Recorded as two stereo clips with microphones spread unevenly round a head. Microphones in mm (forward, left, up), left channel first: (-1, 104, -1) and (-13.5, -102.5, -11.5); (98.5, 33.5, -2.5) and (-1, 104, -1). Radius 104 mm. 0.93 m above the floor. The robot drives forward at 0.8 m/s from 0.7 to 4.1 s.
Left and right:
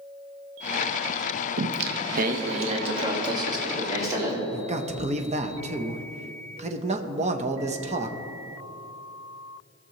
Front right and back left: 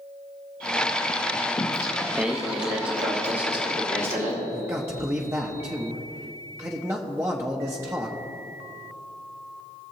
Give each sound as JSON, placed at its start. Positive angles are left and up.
{"t": 1.6, "sound": "singing", "azimuth_deg": -85, "distance_m": 0.6}
{"t": 4.5, "sound": "a man speaking", "azimuth_deg": -140, "distance_m": 0.7}